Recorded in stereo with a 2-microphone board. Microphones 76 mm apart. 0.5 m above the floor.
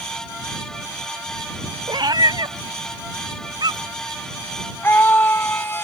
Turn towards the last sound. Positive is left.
turn(degrees=30)  # may be behind; listen again after turning